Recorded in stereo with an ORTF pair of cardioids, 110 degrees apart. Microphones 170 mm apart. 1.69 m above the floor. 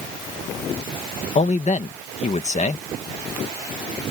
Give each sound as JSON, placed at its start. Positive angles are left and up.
{"t": 1.4, "sound": "a man speaking", "azimuth_deg": 45}